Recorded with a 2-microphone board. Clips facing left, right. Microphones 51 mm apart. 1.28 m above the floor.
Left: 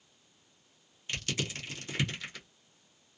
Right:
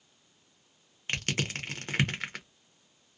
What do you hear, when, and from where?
1.1 s crushing: 50° right (ahead or behind), 0.7 m